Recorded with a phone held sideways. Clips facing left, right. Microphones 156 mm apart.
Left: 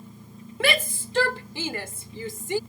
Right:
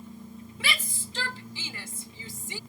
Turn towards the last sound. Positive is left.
turn(degrees=65)  # may be behind; listen again after turning